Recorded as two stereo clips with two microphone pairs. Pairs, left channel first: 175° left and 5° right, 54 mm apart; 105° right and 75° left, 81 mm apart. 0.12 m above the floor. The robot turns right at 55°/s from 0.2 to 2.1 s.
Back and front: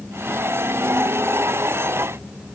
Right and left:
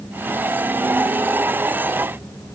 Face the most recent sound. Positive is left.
No sound to turn to.